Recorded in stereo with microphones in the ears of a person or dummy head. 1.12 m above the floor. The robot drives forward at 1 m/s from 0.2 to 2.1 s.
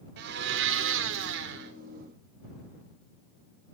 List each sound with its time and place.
0.2 s a blender: 65° right (ahead or behind), 1.8 m; by 1.7 s 60° right (ahead or behind), 1.9 m